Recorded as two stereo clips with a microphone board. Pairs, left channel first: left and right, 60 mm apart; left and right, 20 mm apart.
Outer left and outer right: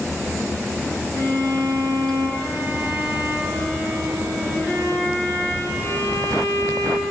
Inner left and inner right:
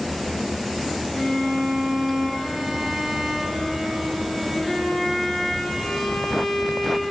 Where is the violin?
45° left (ahead or behind), 3 m.